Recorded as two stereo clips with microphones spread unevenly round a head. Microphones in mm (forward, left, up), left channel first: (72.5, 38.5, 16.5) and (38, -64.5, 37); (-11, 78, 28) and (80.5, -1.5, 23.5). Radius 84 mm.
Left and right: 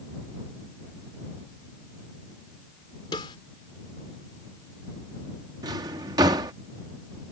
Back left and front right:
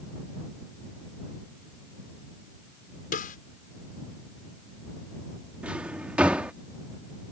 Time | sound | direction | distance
3.1 | a snare drum | 135° left | ?
5.6 | a drawer | 125° right | ?